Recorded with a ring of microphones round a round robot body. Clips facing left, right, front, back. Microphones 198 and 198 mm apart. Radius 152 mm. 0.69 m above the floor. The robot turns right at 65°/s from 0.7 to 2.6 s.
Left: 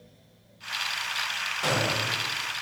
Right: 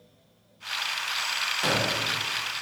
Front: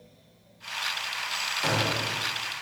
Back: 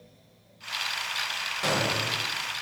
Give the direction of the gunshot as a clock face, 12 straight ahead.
5 o'clock.